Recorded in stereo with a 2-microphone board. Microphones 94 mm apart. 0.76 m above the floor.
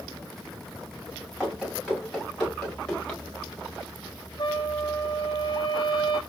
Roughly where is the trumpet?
Left.